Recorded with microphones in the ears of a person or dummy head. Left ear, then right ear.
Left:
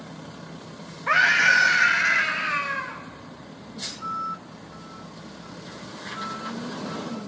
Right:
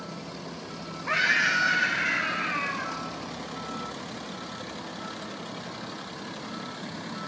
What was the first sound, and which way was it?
A scream, 25° left (ahead or behind).